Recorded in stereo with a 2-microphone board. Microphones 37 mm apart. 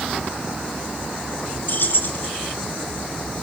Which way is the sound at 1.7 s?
70° left (ahead or behind).